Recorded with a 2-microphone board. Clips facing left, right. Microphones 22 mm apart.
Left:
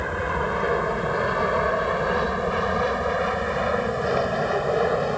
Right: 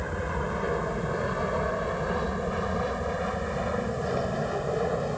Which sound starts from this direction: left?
An aircraft, at 0.0 s.